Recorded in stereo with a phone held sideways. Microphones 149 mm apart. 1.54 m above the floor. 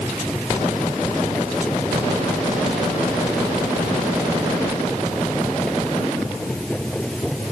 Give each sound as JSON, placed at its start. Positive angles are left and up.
{"t": 0.0, "sound": "a machine running", "side_deg": 5}